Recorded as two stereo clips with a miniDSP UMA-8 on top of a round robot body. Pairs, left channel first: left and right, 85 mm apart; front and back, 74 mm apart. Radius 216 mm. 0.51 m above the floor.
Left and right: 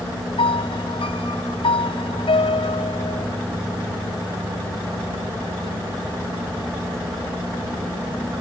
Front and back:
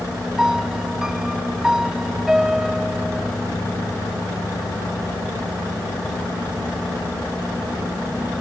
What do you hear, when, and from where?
0.4 s a piano: 95° left